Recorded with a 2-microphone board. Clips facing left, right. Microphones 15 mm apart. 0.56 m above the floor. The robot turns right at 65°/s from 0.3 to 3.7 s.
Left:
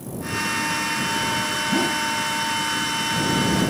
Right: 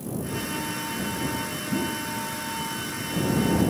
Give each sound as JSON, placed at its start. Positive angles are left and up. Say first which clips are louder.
{"t": 1.7, "sound": "a whoosh", "louder": "left 5 dB", "side_deg": 65}